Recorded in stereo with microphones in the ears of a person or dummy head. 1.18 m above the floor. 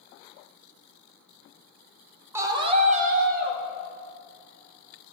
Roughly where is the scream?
Centre.